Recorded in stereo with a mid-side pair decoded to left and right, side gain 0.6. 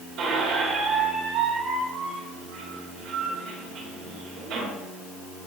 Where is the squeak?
60° right, 3 m.